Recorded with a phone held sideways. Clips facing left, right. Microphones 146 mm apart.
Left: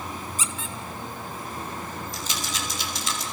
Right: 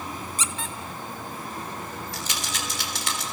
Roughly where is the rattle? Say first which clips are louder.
Left 1 dB; right.